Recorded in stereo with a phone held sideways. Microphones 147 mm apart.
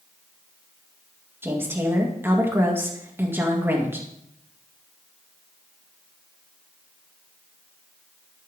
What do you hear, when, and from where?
1.4 s a woman speaking: 15° right (ahead or behind), 2 m